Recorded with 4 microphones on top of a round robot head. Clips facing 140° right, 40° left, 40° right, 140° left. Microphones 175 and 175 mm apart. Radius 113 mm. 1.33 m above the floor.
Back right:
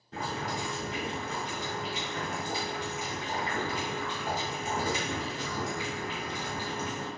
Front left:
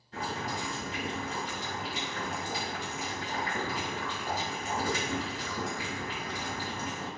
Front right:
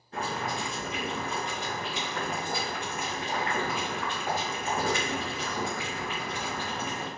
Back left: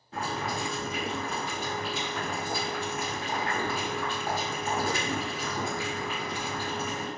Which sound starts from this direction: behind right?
Boiling, at 0.1 s.